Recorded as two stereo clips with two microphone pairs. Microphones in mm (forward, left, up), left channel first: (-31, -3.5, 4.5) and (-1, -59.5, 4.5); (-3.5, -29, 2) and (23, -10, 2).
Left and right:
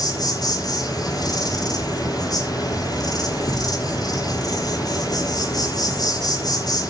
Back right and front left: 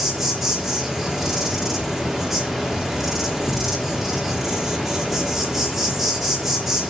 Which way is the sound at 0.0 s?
125° left.